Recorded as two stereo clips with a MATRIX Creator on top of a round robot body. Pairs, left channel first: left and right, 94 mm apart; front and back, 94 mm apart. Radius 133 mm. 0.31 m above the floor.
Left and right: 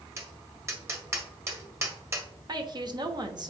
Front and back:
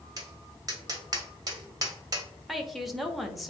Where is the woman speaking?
90° right, 1.3 m.